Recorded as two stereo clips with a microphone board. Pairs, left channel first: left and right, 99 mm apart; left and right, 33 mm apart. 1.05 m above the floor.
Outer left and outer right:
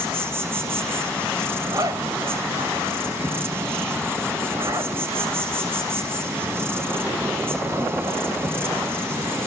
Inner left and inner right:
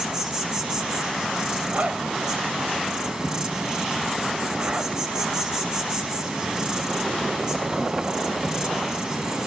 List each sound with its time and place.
0.0 s an insect: 25° right (ahead or behind), 6 m
1.6 s a zipper: 40° right (ahead or behind), 4 m